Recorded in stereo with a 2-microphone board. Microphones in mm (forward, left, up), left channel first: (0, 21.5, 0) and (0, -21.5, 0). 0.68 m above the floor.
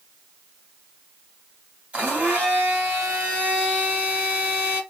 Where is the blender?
30° right (ahead or behind), 1.4 m.